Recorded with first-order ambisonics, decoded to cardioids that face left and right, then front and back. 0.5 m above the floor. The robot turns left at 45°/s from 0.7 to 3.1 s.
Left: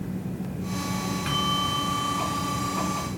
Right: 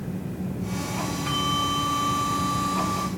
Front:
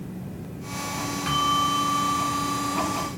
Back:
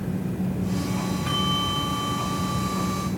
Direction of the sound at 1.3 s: 35° left.